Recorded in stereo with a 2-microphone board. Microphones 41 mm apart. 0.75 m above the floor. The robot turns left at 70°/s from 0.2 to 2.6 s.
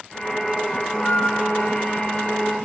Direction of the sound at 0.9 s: 150° left.